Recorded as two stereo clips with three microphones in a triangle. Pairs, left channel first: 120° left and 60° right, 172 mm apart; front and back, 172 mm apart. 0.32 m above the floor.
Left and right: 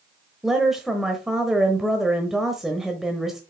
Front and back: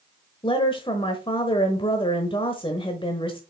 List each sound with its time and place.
0.4 s a woman speaking: 25° left, 1.0 m